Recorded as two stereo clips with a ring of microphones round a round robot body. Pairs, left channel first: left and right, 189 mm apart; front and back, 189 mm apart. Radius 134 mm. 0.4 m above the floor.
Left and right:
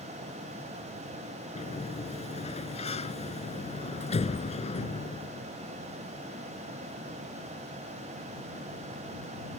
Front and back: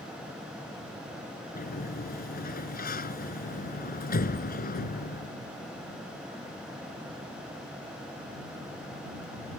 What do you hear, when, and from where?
1.6 s a sliding door: 35° left